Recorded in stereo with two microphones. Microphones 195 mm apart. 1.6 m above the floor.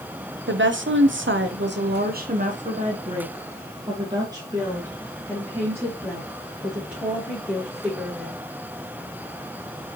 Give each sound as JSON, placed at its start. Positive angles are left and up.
{"t": 0.5, "sound": "a woman speaking", "side_deg": -70, "distance_m": 0.9}